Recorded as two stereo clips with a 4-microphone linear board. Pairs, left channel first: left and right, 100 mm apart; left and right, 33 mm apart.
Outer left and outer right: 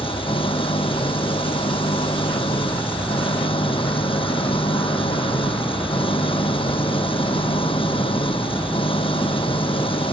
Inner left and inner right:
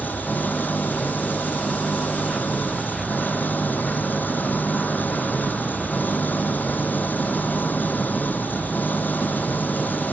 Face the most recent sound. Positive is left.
turn(degrees=65)  # may be behind; listen again after turning